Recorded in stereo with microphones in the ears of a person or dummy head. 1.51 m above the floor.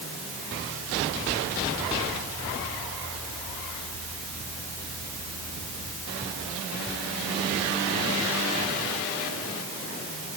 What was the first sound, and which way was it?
Only background noise.